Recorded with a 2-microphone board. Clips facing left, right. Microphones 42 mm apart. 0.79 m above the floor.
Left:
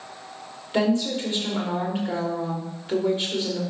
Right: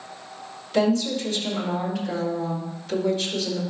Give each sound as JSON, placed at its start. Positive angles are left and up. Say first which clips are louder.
{"t": 0.7, "sound": "a woman speaking", "louder": "right 1 dB", "side_deg": 25, "distance_m": 2.0}